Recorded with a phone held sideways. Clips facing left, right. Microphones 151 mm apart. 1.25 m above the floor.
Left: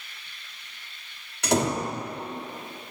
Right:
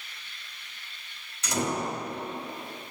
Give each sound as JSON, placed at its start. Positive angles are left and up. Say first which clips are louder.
{"t": 1.4, "sound": "a door slam", "louder": "left 5 dB", "side_deg": 70, "distance_m": 1.4}